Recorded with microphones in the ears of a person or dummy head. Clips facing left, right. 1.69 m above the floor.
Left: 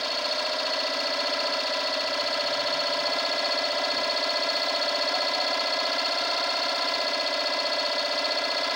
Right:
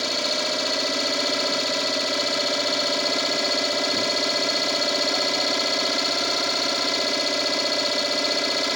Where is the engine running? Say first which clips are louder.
Right 3 dB; 50° right (ahead or behind).